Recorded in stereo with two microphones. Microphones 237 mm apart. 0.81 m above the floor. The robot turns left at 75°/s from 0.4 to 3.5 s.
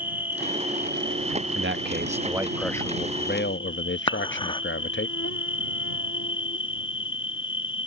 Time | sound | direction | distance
0.0 | an insect | 10° right | ?
1.6 | a man speaking | 105° right | ?
4.1 | dishes clattering | 20° left (ahead or behind) | ?